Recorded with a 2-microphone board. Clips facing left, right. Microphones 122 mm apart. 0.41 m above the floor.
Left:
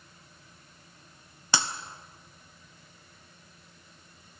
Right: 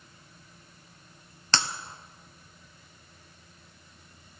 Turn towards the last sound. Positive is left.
turn(degrees=10)  # may be behind; listen again after turning